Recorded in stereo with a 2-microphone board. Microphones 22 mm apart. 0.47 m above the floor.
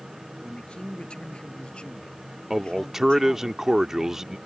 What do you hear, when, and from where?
0.4 s a man speaking: 55° left (ahead or behind); by 3.5 s 45° left (ahead or behind)
2.5 s a man speaking: 20° right (ahead or behind)